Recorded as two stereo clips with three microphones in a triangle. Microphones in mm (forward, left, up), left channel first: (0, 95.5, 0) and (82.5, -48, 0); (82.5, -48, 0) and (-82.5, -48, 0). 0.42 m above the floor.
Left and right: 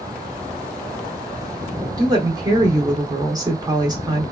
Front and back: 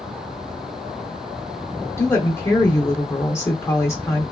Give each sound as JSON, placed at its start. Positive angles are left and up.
{"t": 2.0, "sound": "a woman speaking", "azimuth_deg": -45, "distance_m": 0.8}